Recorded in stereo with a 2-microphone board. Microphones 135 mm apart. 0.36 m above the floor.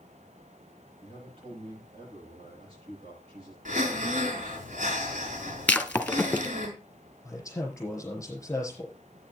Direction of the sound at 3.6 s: 75° right (ahead or behind).